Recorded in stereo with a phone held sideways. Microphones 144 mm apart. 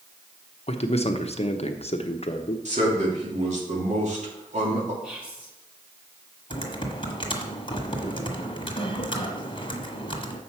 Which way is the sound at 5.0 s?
10° right (ahead or behind).